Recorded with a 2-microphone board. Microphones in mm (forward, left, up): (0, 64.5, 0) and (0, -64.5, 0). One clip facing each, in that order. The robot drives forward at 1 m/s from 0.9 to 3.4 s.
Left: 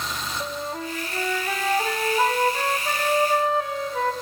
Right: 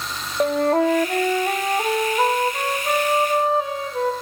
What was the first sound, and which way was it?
A flute, 65° right (ahead or behind).